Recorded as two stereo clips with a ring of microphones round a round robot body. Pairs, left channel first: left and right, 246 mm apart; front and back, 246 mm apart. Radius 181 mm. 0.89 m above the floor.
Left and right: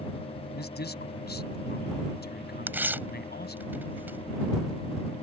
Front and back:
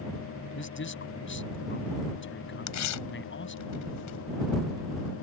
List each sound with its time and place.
0.6 s a man speaking: 40° left
2.7 s tearing paper: 10° right